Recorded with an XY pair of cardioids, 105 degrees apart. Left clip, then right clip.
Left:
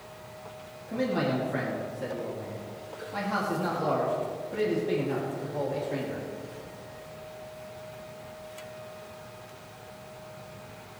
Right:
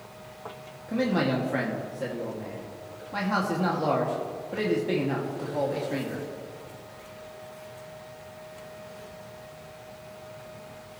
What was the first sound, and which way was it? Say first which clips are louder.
A man speaking: right 2 dB; 35° right.